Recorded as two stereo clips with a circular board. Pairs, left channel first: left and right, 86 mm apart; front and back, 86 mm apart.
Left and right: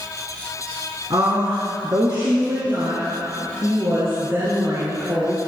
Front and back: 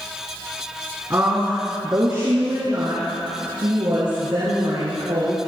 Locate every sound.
1.1 s a woman speaking: 120° right, 3 m; by 5.5 s 155° right, 4.5 m